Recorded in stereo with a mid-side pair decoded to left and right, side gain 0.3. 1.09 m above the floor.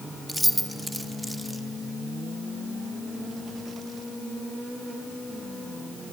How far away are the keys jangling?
About 1.3 m.